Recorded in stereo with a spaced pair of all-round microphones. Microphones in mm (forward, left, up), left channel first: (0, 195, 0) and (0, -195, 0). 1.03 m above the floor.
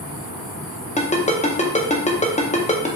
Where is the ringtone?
20° left (ahead or behind), 0.5 m.